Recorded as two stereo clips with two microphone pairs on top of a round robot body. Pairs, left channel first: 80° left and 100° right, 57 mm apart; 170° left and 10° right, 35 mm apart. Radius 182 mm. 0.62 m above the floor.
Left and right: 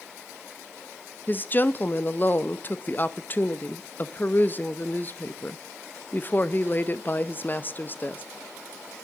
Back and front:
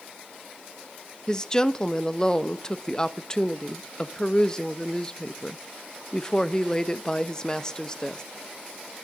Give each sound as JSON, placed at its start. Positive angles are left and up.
{"t": 1.3, "sound": "a woman speaking", "azimuth_deg": 105, "distance_m": 1.1}